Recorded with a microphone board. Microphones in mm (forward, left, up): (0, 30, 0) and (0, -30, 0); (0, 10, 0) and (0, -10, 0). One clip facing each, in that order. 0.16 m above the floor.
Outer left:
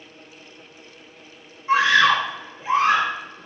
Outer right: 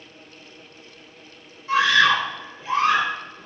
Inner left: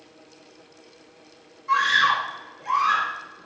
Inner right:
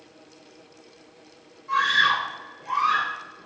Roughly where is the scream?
Left.